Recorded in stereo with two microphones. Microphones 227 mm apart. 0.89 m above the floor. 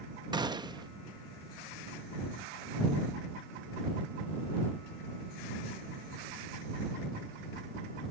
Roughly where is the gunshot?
Centre.